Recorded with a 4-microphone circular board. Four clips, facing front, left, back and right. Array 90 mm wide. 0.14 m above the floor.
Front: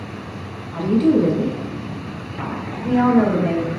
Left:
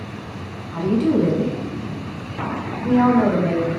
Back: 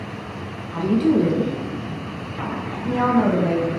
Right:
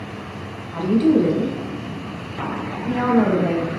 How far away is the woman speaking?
About 1.1 m.